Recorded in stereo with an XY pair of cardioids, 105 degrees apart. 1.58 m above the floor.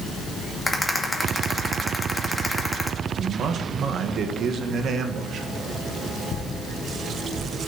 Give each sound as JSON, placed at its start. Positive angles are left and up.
{"t": 0.7, "sound": "a rattle", "azimuth_deg": 5, "distance_m": 2.0}
{"t": 3.2, "sound": "a man speaking", "azimuth_deg": -60, "distance_m": 1.5}